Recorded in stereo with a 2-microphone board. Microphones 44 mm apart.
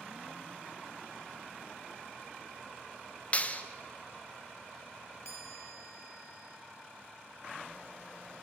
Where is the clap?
30° left (ahead or behind), 1.2 m.